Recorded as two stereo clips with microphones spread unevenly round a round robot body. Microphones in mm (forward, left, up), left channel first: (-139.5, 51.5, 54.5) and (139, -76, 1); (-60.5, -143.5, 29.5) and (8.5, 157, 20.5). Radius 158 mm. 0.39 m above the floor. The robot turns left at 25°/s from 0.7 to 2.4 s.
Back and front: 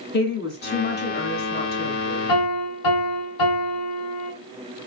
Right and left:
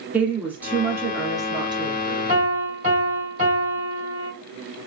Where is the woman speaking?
150° left, 0.9 m; by 2.3 s 110° left, 0.9 m.